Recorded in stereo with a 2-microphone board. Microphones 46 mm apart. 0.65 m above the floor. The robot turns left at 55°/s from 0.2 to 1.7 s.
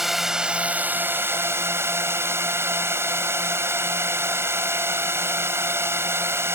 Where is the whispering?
I don't hear whispering.